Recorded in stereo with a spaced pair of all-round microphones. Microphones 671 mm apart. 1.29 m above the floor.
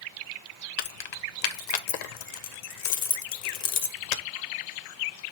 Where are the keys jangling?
75° left (ahead or behind), 0.5 m.